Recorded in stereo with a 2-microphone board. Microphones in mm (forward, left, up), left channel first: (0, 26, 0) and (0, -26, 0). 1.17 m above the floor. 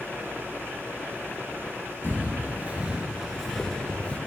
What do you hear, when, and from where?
2.0 s footsteps: 45° right (ahead or behind), 1.5 m; by 4.2 s 25° left (ahead or behind), 1.2 m